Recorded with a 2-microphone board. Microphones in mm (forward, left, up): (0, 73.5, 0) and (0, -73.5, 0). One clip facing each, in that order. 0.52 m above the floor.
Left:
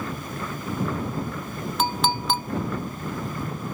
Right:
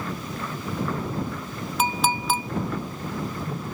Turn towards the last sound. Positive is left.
turn(degrees=-5)  # may be behind; listen again after turning